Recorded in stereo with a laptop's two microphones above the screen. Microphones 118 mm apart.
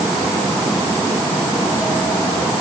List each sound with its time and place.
Only background noise.